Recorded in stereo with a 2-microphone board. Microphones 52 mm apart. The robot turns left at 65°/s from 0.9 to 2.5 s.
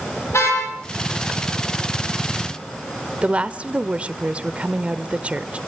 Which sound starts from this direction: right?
A woman speaking, at 3.2 s.